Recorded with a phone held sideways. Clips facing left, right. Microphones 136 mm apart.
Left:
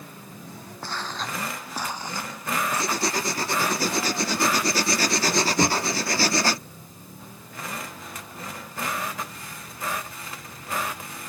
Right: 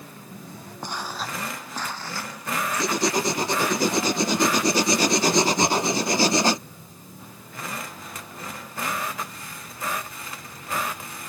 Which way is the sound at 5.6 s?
55° left (ahead or behind).